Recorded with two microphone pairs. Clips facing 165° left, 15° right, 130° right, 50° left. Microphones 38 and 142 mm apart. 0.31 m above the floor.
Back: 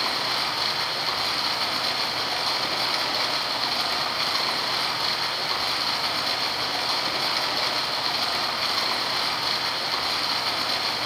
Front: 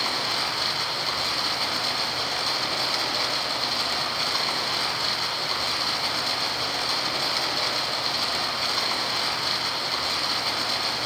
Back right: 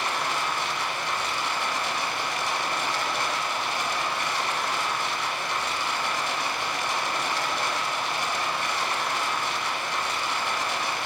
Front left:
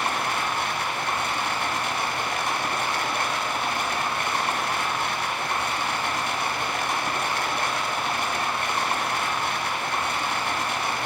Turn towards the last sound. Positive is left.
turn(degrees=80)